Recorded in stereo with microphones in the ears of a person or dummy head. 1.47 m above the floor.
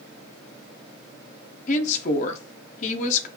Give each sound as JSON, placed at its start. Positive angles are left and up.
{"t": 1.7, "sound": "a woman speaking", "side_deg": 45, "distance_m": 0.5}